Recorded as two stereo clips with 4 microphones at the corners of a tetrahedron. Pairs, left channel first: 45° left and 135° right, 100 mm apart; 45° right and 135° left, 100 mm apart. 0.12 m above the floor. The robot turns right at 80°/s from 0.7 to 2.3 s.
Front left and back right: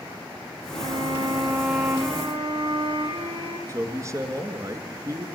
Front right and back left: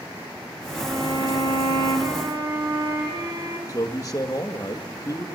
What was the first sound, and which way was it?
A violin, 60° left.